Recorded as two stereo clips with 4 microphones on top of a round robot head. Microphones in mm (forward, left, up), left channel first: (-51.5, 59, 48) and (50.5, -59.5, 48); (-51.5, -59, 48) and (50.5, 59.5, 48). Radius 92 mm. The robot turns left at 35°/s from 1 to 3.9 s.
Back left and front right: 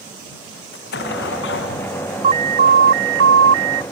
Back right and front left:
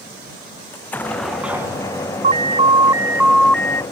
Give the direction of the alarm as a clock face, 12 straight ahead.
12 o'clock.